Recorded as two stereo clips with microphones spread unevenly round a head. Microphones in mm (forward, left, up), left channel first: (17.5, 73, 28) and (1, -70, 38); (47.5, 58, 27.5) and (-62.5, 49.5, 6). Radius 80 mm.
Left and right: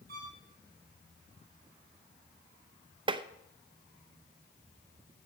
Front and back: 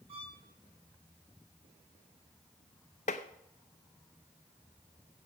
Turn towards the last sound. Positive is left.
turn(degrees=-40)